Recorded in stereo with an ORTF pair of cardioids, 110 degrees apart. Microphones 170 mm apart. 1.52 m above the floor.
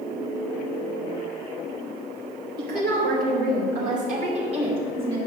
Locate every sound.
2.6 s a woman speaking: 70° right, 2 m; by 5.2 s 30° right, 2.5 m